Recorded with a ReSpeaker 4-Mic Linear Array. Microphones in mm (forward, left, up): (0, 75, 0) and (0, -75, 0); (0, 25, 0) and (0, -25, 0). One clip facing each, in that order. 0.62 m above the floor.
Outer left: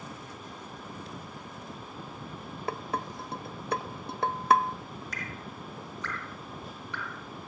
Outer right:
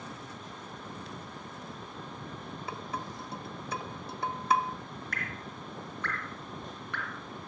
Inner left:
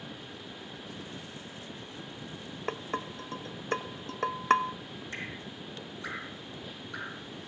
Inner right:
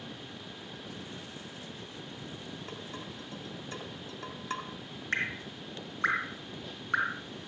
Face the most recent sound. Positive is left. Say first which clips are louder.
# even, inner right 9 dB
turn(degrees=-55)  # may be behind; listen again after turning